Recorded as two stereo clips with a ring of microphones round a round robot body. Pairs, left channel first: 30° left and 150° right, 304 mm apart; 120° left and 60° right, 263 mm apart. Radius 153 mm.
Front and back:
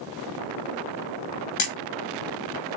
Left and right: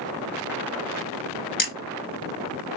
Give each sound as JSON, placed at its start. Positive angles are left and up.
{"t": 1.6, "sound": "a camera shutter", "azimuth_deg": 65, "distance_m": 1.2}